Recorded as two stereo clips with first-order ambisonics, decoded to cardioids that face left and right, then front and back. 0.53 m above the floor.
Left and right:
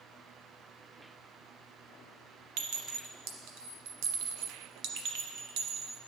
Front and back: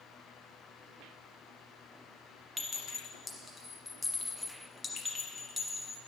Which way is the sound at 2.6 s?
85° right.